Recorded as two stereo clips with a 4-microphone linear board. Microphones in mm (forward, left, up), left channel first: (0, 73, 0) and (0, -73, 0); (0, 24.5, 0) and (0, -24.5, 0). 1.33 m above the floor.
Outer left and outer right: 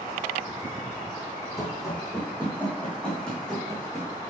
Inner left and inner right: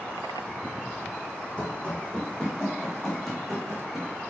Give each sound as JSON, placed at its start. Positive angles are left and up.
{"t": 1.6, "sound": "running footsteps", "side_deg": 20, "distance_m": 3.0}